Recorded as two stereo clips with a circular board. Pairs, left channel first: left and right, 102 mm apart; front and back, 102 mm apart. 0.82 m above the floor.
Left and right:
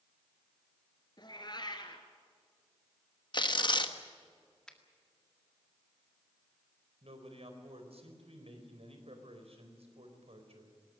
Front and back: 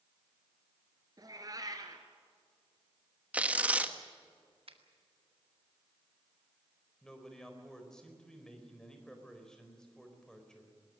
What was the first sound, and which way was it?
A cat meowing, 130° left.